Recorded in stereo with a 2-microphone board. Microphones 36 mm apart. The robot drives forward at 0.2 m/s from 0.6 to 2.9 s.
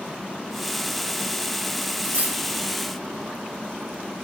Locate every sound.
2.0 s cutlery clinking: 45° right (ahead or behind), 1.1 m